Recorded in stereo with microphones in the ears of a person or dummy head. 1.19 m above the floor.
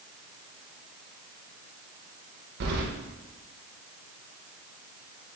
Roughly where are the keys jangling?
Right.